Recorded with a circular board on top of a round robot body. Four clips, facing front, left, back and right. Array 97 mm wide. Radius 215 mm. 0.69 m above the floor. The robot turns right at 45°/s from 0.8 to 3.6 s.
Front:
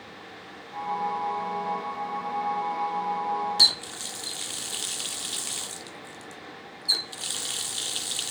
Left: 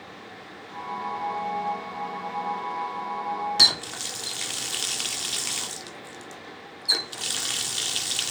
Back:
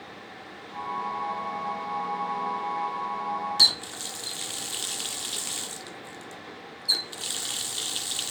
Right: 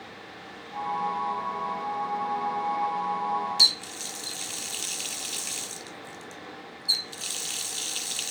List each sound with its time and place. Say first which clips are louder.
3.6 s a running tap: left 5 dB, even; 85° left; by 8.3 s 90° left